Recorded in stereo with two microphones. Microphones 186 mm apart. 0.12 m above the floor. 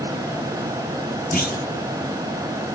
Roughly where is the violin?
I don't hear a violin.